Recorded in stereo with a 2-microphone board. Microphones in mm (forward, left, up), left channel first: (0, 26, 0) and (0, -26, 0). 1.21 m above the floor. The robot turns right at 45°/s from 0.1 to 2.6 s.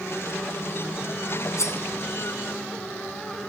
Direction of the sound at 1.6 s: 60° left (ahead or behind).